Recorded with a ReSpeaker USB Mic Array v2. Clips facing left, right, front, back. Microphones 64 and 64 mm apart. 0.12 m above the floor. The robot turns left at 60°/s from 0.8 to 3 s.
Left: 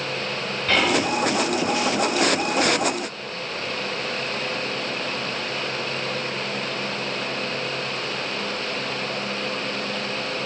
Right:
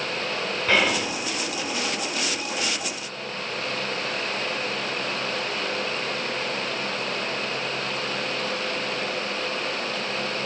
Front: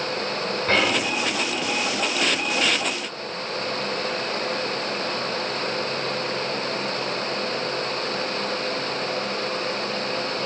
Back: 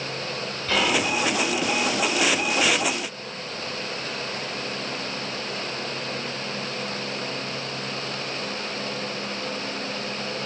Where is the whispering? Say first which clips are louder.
Left 2 dB, even; 10° right, 1.7 m; by 1.2 s 30° right, 1.7 m.